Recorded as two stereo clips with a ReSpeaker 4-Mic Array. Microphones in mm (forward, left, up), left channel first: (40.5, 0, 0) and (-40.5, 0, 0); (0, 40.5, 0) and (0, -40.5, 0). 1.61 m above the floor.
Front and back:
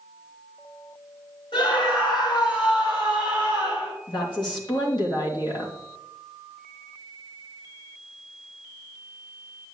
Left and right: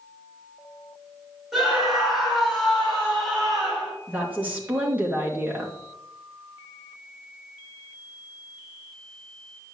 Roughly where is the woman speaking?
Ahead.